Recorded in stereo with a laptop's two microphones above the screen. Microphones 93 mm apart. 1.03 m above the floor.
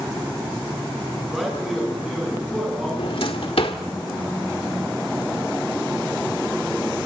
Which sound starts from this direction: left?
A drawer, at 3.0 s.